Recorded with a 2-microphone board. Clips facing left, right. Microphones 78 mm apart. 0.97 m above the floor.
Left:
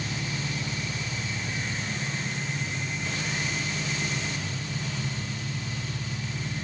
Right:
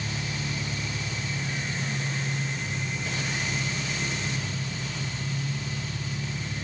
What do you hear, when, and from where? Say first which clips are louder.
0.0 s an engine running: even; 45° left (ahead or behind), 7 m